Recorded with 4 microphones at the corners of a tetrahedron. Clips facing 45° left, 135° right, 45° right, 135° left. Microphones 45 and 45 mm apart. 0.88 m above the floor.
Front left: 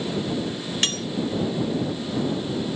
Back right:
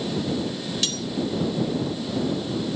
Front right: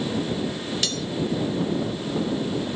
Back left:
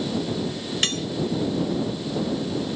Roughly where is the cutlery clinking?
Left.